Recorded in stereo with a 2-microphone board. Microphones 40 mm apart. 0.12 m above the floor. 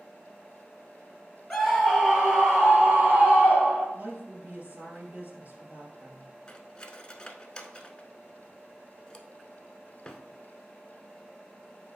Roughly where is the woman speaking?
Right.